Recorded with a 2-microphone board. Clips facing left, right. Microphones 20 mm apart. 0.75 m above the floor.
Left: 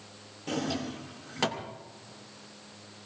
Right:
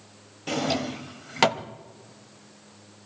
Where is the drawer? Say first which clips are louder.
Right 6 dB; 55° right (ahead or behind), 0.7 m.